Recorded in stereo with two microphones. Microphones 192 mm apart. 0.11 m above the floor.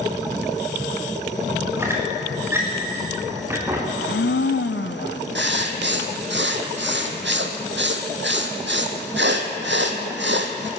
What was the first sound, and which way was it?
A squeak, 15° right (ahead or behind).